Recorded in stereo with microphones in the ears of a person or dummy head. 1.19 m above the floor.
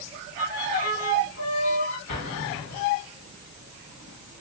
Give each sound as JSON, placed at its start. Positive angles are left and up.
{"t": 0.4, "sound": "a violin", "side_deg": 65, "distance_m": 1.2}
{"t": 2.1, "sound": "an explosion", "side_deg": 55, "distance_m": 1.9}